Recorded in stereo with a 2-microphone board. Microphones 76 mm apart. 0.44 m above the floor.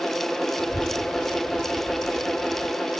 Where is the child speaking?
85° right; by 2.7 s 80° right.